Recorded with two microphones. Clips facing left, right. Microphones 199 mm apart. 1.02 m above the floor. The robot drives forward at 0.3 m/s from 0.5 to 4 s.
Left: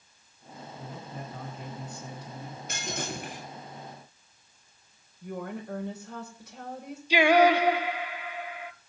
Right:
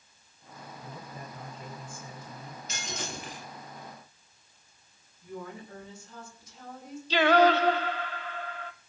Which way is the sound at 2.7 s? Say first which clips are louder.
Left 4 dB; 55° left (ahead or behind).